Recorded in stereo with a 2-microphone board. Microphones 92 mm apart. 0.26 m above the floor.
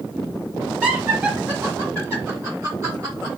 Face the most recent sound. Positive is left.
turn(degrees=-35)  # may be behind; listen again after turning